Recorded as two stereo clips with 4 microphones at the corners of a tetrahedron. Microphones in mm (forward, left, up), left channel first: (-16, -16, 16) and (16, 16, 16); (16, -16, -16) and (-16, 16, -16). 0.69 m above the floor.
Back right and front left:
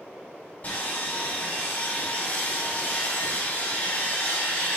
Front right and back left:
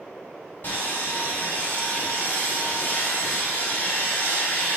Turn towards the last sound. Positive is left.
turn(degrees=-90)